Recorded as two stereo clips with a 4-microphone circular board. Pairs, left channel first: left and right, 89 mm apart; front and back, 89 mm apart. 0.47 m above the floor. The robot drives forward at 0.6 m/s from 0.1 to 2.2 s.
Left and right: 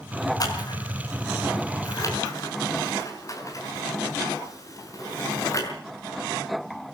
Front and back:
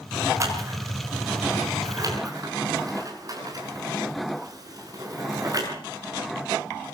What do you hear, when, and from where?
0.4 s scissors: 130° left, 5 m; by 5.7 s 135° left, 6 m